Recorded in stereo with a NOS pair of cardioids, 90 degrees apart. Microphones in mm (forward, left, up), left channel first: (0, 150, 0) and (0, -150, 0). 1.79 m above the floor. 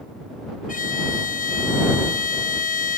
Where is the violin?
25° left.